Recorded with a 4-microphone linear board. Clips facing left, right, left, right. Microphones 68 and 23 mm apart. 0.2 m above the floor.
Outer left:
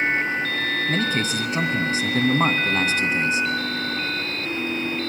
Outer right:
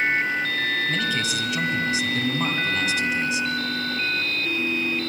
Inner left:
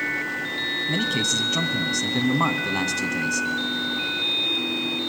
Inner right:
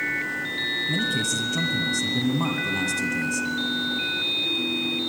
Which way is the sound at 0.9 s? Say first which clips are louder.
Outer left 2 dB, inner left 1 dB; 35° left (ahead or behind).